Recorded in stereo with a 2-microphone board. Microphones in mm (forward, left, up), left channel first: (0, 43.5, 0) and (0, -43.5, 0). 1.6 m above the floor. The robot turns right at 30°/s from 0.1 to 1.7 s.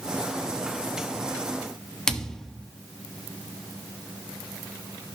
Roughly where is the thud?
Centre.